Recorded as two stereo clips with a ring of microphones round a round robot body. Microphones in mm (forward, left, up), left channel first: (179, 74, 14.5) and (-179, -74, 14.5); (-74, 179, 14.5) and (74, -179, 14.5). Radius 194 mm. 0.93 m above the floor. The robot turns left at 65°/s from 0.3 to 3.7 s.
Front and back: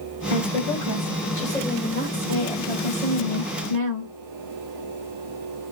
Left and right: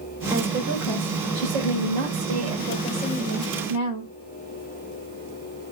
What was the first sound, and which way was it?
A woman speaking, 20° left.